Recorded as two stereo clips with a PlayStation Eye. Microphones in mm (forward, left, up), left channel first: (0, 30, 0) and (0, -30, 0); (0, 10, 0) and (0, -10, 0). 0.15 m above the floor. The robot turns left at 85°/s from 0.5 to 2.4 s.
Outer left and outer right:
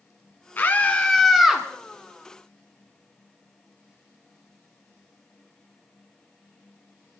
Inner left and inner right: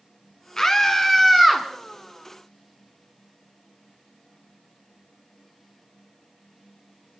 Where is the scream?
70° left, 1.4 m; by 1.7 s 25° right, 1.4 m.